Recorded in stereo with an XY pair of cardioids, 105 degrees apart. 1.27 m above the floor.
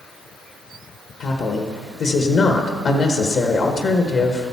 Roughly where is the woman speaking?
Ahead left.